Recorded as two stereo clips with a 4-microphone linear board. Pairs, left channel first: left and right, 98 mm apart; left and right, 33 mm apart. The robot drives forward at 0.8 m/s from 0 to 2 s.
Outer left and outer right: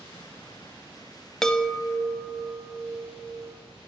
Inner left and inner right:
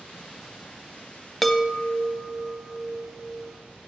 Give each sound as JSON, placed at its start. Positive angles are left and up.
{"t": 1.4, "sound": "a chime", "side_deg": 5, "distance_m": 0.5}